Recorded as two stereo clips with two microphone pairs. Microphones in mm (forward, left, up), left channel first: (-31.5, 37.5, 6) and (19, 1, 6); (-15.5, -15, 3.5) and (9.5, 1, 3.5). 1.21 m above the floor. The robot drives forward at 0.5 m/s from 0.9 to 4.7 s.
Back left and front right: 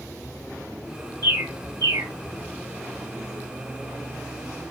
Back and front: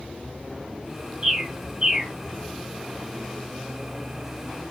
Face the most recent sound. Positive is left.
turn(degrees=-90)